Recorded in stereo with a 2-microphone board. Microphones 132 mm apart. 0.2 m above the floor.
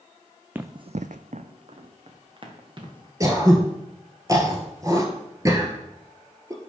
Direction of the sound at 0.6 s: 15° right (ahead or behind).